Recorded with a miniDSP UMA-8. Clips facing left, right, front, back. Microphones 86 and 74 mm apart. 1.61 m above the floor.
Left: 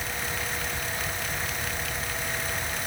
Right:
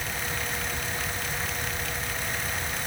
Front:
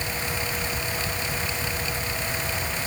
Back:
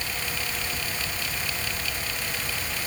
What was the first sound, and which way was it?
Only background noise.